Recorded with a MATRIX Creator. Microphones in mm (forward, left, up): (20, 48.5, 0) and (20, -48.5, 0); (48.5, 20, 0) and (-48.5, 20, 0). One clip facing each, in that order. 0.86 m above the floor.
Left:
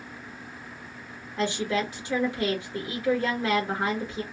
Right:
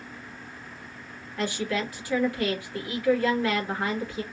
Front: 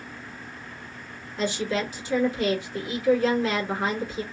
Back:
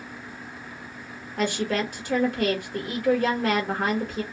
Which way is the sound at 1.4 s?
155° left.